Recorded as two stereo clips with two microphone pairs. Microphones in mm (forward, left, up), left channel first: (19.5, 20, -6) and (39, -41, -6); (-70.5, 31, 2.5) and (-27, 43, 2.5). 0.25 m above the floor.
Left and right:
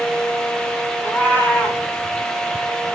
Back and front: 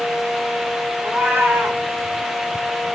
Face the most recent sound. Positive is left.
turn(degrees=45)